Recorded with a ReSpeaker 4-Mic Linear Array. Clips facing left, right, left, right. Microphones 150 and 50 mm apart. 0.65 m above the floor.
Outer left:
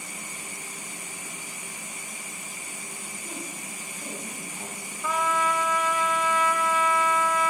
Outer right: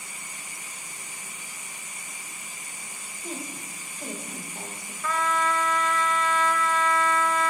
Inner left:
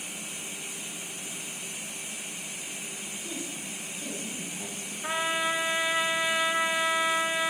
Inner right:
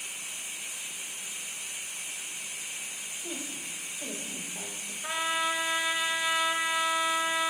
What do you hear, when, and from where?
3.2 s a woman speaking: 30° right (ahead or behind), 3.5 m
5.0 s a trumpet: 15° left (ahead or behind), 0.8 m